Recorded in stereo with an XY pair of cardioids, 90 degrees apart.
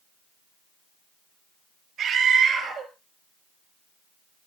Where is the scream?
70° right, 7 m.